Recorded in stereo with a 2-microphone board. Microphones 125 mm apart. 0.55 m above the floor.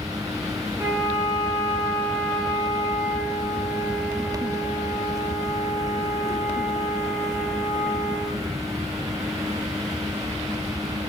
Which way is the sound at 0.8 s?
20° right (ahead or behind).